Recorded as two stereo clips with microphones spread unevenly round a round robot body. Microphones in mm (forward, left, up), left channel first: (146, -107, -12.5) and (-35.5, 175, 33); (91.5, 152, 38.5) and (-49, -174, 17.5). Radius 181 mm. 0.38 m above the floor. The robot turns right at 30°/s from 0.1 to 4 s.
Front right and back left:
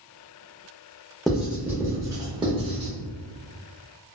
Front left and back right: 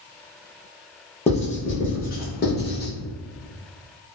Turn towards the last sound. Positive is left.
turn(degrees=95)